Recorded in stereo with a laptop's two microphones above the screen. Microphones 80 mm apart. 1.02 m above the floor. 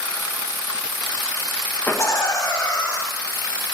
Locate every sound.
1.9 s laughter: 25° left (ahead or behind), 0.5 m; by 3.0 s 50° left (ahead or behind), 2.0 m